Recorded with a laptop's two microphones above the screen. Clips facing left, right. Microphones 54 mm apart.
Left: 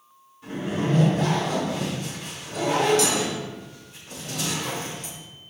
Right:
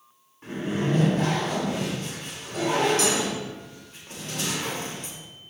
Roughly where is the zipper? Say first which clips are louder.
Even; right.